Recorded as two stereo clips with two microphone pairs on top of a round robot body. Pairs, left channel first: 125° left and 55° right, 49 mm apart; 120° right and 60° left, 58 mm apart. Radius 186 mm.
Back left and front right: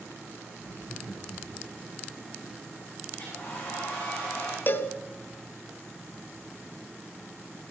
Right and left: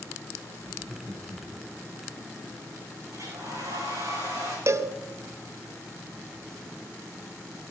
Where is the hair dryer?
80° left, 8.5 m.